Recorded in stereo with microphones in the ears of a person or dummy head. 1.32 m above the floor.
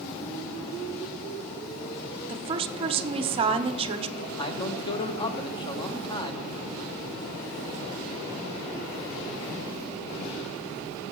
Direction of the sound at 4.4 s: 25° left (ahead or behind).